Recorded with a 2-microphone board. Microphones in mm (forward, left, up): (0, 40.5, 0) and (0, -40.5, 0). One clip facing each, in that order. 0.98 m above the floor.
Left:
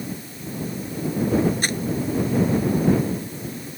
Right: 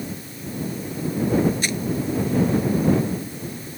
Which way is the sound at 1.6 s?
45° left (ahead or behind).